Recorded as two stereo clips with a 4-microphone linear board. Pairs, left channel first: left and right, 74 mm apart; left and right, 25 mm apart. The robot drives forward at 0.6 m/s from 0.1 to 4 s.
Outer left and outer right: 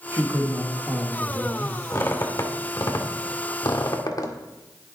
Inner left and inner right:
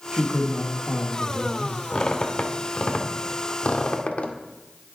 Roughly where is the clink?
I don't hear a clink.